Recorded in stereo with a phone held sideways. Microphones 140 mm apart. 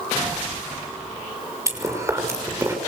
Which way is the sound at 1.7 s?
20° right (ahead or behind).